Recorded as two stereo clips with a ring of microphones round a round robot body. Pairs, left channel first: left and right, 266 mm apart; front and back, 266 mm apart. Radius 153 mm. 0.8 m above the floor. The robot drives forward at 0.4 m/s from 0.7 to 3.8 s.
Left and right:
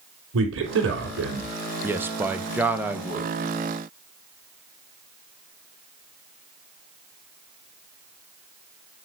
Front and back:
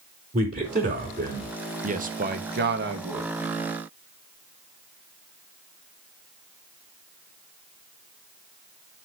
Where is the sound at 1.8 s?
165° right, 1.1 m; by 3.3 s 170° right, 1.5 m.